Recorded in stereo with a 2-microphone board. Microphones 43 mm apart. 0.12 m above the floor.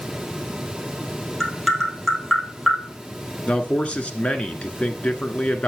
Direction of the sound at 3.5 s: 30° left (ahead or behind).